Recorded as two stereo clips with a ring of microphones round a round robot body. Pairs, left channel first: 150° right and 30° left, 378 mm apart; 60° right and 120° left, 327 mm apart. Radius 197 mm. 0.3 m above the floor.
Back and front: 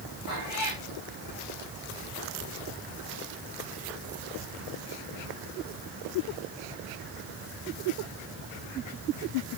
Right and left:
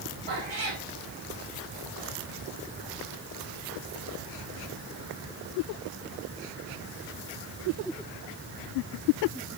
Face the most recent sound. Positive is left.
turn(degrees=140)